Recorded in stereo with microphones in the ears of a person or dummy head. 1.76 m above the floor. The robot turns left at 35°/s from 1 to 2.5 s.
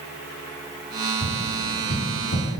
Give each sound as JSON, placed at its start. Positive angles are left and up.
{"t": 1.2, "sound": "tapping", "side_deg": 40, "distance_m": 8.0}